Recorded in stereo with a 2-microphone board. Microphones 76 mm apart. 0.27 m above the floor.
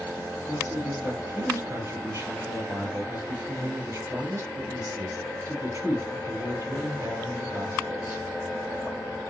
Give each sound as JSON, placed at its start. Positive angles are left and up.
{"t": 0.5, "sound": "a man speaking", "side_deg": -45, "distance_m": 4.0}